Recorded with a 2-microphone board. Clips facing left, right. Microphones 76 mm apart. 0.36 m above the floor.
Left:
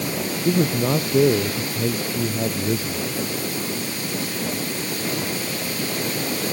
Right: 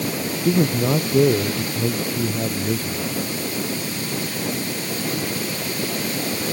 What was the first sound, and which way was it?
A man speaking, centre (ahead or behind).